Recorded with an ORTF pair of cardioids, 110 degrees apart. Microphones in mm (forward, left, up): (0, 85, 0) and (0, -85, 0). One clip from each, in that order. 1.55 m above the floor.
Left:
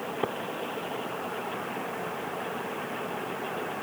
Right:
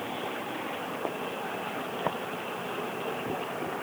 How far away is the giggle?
I don't hear a giggle.